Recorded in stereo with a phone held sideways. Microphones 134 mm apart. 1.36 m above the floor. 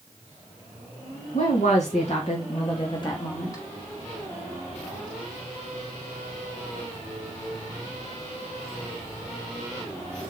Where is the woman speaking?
70° left (ahead or behind), 2.5 m; by 3.6 s 25° left (ahead or behind), 2.5 m.